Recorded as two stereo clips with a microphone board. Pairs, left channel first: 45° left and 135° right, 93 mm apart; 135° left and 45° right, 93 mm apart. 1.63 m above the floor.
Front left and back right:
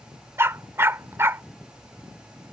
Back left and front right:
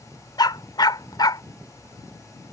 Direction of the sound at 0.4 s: 165° left.